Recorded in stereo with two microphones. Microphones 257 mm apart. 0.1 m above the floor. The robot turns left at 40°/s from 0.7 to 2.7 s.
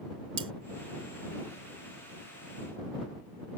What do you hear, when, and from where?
0.4 s cutlery clinking: 55° right (ahead or behind)